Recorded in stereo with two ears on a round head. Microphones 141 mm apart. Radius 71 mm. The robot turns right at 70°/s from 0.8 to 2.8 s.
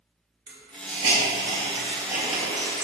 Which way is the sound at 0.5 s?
70° right (ahead or behind).